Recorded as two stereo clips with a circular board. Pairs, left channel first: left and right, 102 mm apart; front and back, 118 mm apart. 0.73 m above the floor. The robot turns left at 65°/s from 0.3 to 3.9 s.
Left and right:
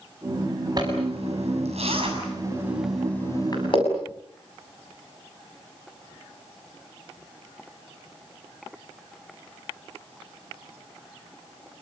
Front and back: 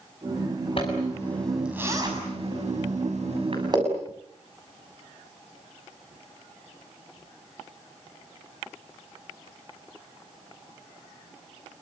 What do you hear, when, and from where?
0.8 s a zipper: 40° right, 7 m; by 3.8 s 125° left, 7 m